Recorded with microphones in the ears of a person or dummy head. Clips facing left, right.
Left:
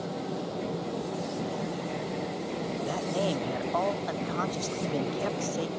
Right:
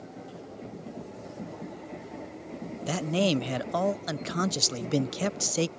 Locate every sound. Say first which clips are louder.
0.0 s a fan: left 9 dB; 85° left
2.9 s a man speaking: right 5 dB; 30° right (ahead or behind)